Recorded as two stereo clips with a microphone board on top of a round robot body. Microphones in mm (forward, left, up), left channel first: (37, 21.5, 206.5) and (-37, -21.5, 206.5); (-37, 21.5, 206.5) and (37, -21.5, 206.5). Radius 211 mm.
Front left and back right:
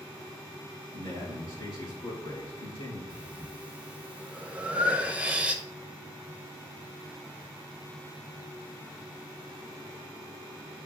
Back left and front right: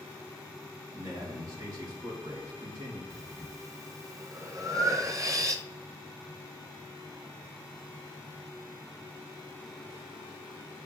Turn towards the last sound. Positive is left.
turn(degrees=-80)